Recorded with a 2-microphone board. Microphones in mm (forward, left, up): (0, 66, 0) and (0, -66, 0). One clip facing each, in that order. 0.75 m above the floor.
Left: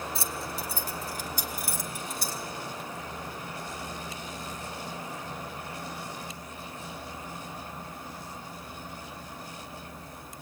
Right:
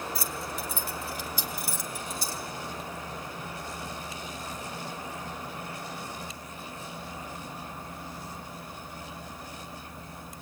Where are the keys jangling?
25° left (ahead or behind), 1.2 m; by 2.4 s 55° left (ahead or behind), 2.5 m.